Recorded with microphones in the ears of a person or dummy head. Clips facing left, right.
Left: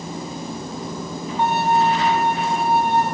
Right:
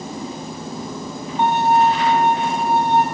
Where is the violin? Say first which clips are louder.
Right 3 dB; 20° right (ahead or behind), 2.5 m.